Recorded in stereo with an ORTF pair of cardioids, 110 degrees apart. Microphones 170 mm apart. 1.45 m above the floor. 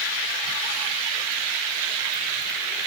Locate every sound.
Only background noise.